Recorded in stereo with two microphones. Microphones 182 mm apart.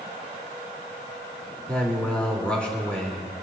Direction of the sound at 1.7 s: 5° left (ahead or behind).